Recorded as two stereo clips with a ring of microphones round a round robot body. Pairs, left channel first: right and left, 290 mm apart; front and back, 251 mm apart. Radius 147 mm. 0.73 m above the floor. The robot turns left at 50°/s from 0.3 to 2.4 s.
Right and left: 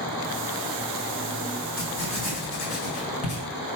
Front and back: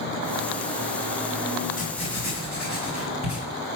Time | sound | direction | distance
1.8 | writing | 60° right | 3 m